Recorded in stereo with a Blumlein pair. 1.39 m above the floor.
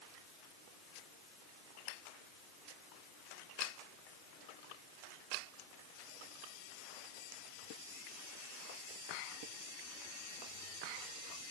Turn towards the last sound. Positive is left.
No sound to turn to.